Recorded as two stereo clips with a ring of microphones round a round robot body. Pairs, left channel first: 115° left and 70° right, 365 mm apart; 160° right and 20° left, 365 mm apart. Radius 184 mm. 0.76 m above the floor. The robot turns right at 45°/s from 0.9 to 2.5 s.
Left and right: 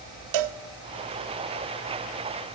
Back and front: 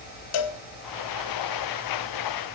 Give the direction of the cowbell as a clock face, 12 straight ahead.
4 o'clock.